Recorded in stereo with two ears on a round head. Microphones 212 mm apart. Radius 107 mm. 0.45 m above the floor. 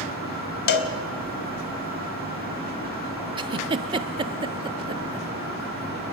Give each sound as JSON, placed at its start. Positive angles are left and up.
{"t": 0.7, "sound": "a cowbell", "side_deg": 45, "distance_m": 1.5}
{"t": 3.4, "sound": "a giggle", "side_deg": -20, "distance_m": 0.8}